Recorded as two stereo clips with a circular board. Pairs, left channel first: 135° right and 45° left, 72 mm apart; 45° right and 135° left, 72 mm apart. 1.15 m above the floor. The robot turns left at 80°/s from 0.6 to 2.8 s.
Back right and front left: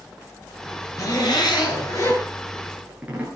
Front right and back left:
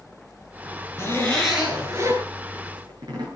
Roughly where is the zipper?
Right.